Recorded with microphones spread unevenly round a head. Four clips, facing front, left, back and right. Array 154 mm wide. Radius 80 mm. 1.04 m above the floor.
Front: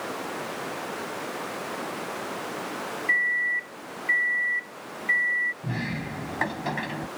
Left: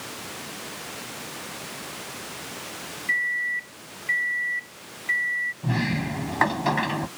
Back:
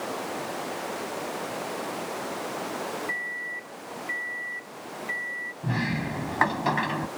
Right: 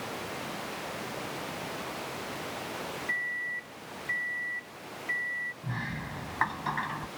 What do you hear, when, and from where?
3.1 s a microwave: 5° left
5.6 s a sliding door: 150° left